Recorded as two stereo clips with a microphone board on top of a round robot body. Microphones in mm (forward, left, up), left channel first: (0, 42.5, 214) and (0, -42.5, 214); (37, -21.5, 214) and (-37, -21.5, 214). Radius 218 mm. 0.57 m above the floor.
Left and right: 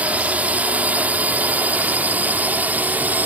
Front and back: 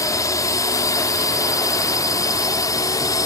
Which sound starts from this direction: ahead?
A drone, at 0.0 s.